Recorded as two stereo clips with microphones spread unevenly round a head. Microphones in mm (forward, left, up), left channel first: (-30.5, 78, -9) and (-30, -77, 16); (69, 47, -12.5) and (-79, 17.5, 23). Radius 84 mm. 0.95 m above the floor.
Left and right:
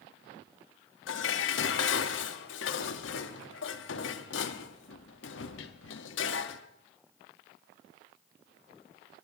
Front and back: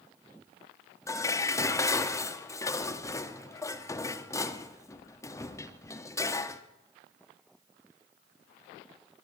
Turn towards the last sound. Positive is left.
turn(degrees=85)